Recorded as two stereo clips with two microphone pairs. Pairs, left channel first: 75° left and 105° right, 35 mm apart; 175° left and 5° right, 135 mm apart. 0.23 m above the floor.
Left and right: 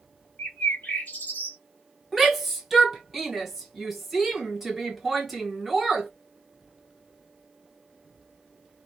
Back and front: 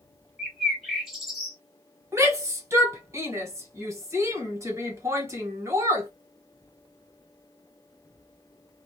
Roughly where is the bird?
Left.